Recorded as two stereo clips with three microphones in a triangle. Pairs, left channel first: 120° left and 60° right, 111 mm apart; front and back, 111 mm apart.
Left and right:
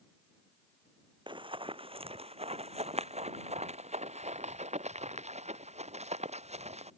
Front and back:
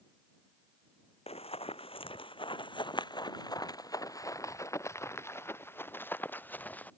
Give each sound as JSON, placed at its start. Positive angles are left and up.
{"t": 1.3, "sound": "running footsteps", "azimuth_deg": -20}